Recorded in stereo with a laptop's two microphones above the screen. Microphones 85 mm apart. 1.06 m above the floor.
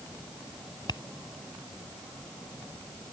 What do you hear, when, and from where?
0.9 s tapping: 60° left (ahead or behind)